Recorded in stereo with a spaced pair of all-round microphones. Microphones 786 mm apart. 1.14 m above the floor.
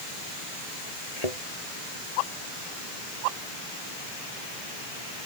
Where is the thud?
50° left (ahead or behind).